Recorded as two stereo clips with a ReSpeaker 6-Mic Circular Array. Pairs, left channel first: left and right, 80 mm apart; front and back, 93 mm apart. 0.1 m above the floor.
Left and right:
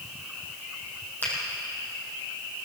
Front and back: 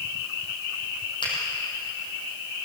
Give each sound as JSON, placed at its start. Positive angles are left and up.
{"t": 1.2, "sound": "a finger snap", "azimuth_deg": 25, "distance_m": 4.5}